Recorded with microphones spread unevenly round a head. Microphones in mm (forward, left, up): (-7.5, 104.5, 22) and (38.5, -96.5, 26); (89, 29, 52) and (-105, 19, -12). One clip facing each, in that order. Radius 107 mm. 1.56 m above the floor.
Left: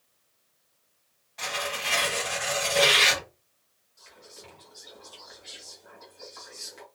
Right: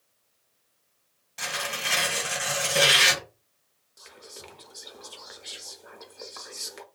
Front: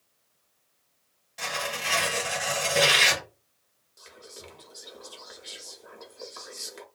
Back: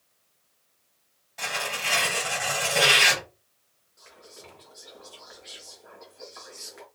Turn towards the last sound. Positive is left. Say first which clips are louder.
# right 3 dB, front 2 dB
turn(degrees=-55)